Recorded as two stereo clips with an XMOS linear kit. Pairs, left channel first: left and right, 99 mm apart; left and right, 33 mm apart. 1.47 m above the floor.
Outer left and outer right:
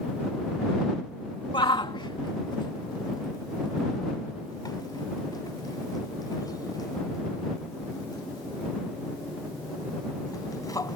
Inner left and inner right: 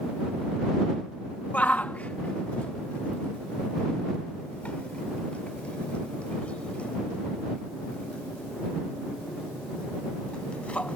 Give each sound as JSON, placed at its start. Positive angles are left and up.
{"t": 1.5, "sound": "a shout", "side_deg": 55}